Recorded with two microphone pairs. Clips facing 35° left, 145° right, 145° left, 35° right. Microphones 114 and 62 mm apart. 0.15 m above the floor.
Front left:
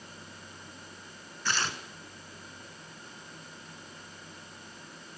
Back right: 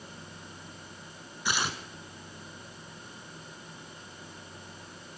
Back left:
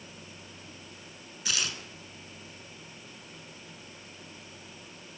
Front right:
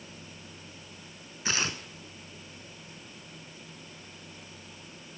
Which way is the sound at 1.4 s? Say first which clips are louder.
Back right 1 dB, front right 3 dB; 70° right.